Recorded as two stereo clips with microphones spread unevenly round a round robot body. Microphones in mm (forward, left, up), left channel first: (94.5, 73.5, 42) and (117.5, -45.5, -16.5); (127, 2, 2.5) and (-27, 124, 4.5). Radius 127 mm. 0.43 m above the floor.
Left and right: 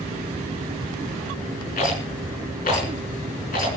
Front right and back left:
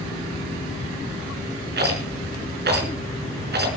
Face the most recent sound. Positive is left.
turn(degrees=110)